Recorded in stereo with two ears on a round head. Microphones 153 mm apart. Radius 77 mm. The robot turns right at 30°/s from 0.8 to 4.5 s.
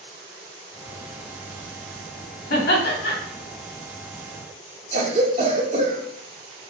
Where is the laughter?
60° left (ahead or behind), 1.8 m; by 3.1 s 70° left (ahead or behind), 1.8 m.